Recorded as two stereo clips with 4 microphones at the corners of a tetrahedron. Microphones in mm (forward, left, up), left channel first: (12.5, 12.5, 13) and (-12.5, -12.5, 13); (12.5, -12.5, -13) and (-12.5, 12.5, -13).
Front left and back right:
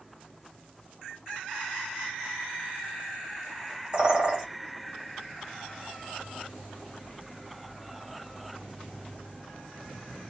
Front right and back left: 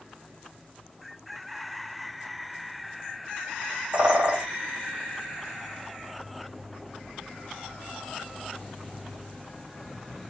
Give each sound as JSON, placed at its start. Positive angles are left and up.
{"t": 3.9, "sound": "a bird", "azimuth_deg": 180, "distance_m": 1.2}